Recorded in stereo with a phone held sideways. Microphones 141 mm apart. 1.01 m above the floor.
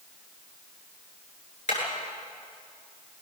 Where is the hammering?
60° left (ahead or behind), 8 m.